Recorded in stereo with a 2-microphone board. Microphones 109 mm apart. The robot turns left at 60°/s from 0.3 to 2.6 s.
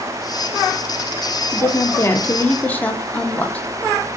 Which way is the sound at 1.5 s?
25° left (ahead or behind).